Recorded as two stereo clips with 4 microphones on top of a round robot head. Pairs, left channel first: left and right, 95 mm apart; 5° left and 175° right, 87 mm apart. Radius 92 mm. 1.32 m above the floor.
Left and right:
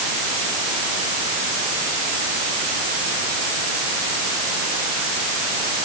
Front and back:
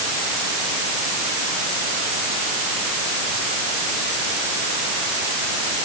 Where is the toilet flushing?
I don't hear a toilet flushing.